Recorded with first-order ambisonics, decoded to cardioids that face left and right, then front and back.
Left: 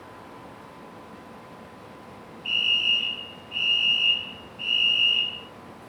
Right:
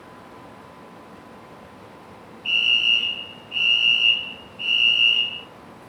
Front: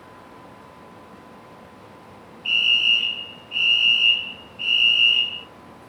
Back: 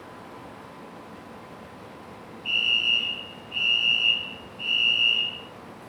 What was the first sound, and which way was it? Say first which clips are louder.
A fire alarm: right 4 dB, front 5 dB; 30° right.